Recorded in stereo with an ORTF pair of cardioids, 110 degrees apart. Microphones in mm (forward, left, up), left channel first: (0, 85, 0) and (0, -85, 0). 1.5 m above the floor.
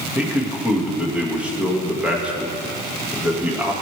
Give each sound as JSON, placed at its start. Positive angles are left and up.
{"t": 0.1, "sound": "a man speaking", "azimuth_deg": -10, "distance_m": 1.8}